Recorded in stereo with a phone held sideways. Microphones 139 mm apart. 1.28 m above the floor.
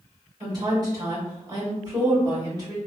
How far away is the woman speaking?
About 1.9 m.